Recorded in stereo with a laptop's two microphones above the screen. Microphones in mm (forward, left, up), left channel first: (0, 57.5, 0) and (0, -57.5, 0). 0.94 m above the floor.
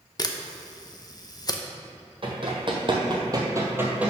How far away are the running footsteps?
About 1.6 m.